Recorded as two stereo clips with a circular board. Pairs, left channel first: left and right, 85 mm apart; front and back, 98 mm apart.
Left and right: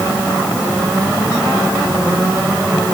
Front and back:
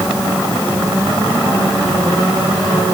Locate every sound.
Only background noise.